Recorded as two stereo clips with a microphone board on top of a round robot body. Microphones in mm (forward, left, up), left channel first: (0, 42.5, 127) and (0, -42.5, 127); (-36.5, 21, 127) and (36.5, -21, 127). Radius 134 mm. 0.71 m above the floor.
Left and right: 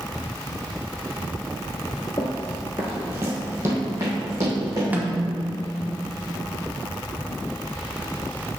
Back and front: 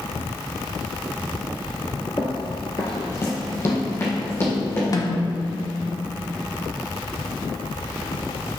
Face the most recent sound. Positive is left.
turn(degrees=-160)